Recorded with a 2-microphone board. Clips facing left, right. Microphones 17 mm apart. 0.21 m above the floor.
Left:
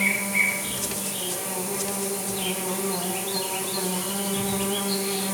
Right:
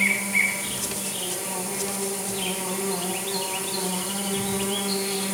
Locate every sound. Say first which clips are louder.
0.0 s an insect: right 1 dB; 10° right (ahead or behind), 4.5 m